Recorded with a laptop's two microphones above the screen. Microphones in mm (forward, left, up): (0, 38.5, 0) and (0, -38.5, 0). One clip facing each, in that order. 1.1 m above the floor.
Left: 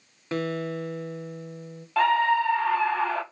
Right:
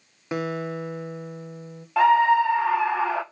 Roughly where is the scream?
Centre.